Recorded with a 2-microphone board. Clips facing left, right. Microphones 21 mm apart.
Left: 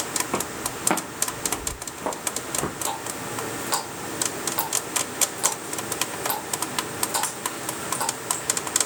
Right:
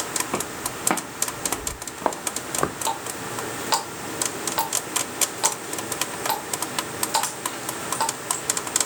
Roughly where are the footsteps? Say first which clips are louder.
Even; centre.